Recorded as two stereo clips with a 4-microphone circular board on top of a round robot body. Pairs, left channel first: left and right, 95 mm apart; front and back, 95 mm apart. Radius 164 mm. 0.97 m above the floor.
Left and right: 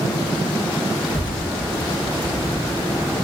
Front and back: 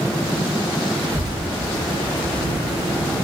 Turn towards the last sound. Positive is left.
turn(degrees=135)